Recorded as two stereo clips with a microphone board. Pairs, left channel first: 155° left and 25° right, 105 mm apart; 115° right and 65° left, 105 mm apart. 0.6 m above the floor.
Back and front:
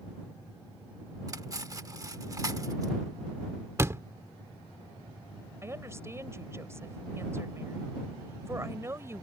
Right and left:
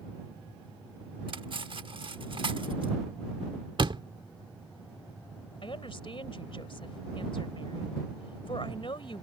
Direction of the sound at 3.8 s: 40° left.